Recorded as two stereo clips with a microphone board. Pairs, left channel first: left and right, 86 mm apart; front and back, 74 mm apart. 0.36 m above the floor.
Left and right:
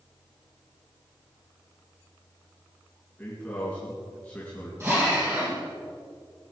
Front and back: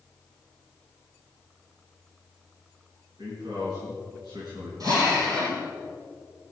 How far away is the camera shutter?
I don't hear a camera shutter.